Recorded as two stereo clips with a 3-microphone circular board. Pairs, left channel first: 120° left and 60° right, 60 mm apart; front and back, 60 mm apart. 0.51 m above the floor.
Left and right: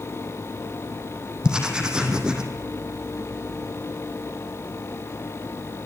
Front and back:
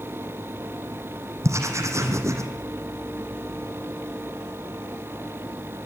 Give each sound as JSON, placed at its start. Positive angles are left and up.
{"t": 1.4, "sound": "writing", "azimuth_deg": -135, "distance_m": 3.5}